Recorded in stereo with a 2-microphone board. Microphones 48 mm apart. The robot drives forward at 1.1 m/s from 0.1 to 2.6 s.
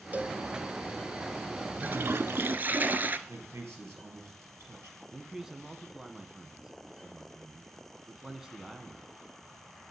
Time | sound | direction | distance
0.1 | a cowbell | 35° right (ahead or behind) | 0.9 m
1.8 | a toilet flushing | 40° right (ahead or behind) | 0.7 m
3.3 | a man speaking | 65° right (ahead or behind) | 4 m
5.1 | a man speaking | 10° right (ahead or behind) | 1.1 m